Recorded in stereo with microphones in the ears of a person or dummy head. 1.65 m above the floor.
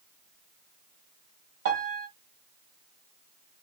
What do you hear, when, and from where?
1.6 s a piano: 60° right (ahead or behind), 1.4 m